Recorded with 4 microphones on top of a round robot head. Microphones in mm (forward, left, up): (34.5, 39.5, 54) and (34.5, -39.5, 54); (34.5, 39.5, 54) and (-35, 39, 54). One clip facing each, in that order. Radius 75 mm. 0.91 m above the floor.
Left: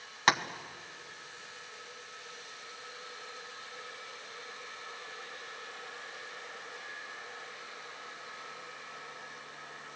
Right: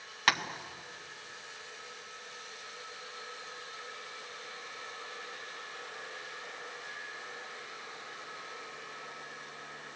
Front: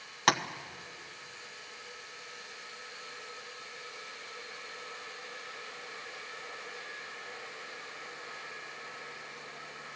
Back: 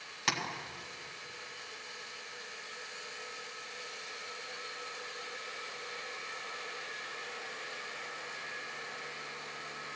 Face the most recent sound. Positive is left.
turn(degrees=20)